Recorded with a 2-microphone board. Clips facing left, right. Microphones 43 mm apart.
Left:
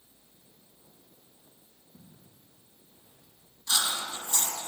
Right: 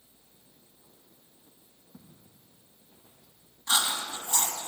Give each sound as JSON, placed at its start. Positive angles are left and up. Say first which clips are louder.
{"t": 1.9, "sound": "footsteps", "louder": "right 2 dB", "side_deg": -35, "distance_m": 5.0}
{"t": 3.7, "sound": "chewing", "louder": "right 2 dB", "side_deg": -30, "distance_m": 1.9}